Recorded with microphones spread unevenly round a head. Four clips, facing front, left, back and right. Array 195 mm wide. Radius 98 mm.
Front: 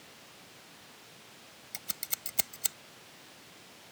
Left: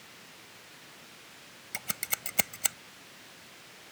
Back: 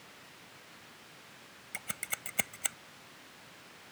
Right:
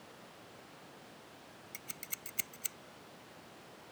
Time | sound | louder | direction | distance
1.7 | scissors | left 15 dB, back 5 dB | 105° left | ?